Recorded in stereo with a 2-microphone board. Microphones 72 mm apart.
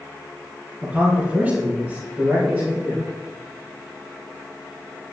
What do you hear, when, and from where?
0.8 s a man speaking: 20° right (ahead or behind), 3 m; by 3.1 s 35° right (ahead or behind), 5.5 m